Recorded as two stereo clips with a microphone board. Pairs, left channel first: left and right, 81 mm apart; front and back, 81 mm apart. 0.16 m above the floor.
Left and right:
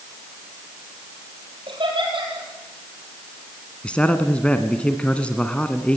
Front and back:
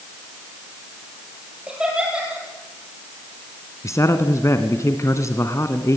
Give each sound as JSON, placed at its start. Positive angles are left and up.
{"t": 1.7, "sound": "laughter", "azimuth_deg": -100, "distance_m": 4.0}
{"t": 3.8, "sound": "a man speaking", "azimuth_deg": 20, "distance_m": 1.4}